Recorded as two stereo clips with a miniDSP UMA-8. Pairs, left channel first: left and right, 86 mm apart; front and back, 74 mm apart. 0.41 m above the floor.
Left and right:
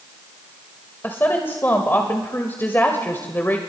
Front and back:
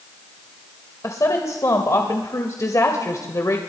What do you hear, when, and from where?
1.0 s a woman speaking: 30° left, 1.8 m